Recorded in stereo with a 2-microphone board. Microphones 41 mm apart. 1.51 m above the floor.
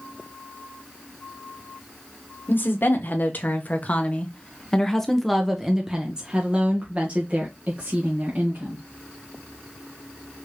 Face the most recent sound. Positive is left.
turn(degrees=-50)  # may be behind; listen again after turning